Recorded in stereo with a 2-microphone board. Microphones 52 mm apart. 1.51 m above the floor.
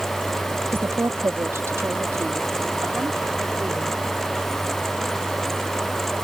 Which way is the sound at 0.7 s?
55° right (ahead or behind).